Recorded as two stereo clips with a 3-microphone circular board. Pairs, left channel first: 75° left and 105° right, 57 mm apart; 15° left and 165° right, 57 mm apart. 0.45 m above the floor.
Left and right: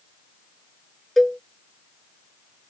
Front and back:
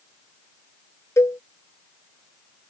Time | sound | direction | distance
1.2 | a cowbell | 10° right | ?